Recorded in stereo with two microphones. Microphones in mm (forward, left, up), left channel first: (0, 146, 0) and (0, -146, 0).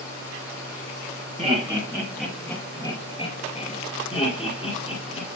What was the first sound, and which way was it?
Laughter, 20° right (ahead or behind).